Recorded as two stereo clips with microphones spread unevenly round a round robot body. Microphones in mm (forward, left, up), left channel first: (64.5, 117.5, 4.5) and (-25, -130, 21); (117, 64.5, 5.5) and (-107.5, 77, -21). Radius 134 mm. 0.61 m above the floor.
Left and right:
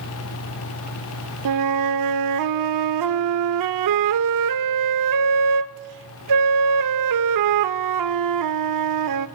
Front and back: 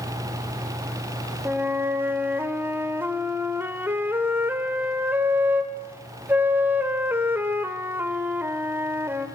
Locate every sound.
1.4 s a flute: 100° right, 1.0 m